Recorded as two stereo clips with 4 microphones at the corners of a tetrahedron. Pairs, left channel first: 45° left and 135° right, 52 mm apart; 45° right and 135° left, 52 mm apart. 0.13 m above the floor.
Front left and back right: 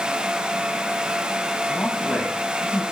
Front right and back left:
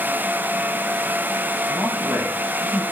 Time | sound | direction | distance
1.7 | a man speaking | 105° left | 7.5 m